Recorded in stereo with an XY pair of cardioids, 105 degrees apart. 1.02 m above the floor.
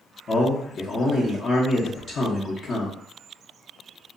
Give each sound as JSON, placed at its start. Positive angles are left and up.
{"t": 0.3, "sound": "a man speaking", "azimuth_deg": 50, "distance_m": 0.8}